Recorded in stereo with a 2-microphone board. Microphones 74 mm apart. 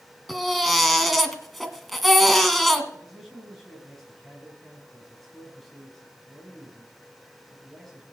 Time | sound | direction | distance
0.3 | a baby crying | centre (ahead or behind) | 1.7 m
2.9 | a man speaking | 5° left (ahead or behind) | 5 m